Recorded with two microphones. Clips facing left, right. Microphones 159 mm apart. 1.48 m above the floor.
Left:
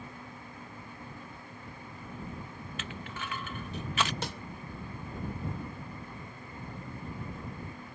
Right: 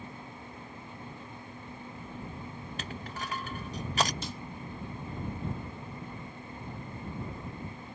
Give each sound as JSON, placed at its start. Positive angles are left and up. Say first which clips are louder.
{"t": 2.8, "sound": "crushing", "louder": "right 1 dB", "side_deg": -35}
{"t": 4.2, "sound": "a snare drum", "louder": "left 2 dB", "side_deg": 65}